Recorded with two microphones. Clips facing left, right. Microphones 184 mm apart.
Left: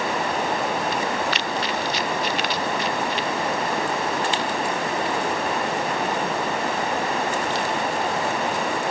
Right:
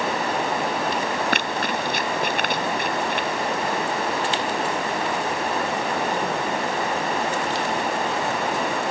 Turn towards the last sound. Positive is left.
turn(degrees=-55)  # may be behind; listen again after turning